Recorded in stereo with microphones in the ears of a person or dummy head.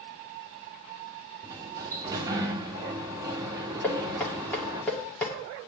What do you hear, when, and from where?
1.4 s a sliding door: 20° right (ahead or behind), 1.6 m
3.8 s knocking: 10° left (ahead or behind), 2.5 m